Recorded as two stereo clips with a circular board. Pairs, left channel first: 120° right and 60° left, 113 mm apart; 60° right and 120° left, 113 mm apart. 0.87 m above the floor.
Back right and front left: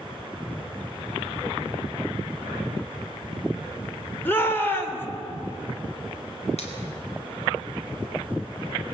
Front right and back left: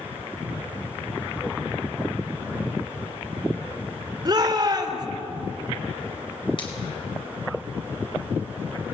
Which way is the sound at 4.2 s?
170° left.